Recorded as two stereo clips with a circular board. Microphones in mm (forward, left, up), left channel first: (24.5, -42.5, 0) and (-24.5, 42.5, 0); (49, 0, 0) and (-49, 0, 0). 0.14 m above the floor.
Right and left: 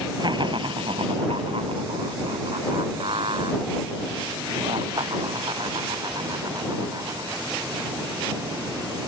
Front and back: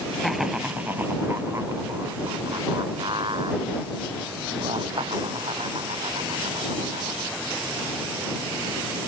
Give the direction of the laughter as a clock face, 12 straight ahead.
9 o'clock.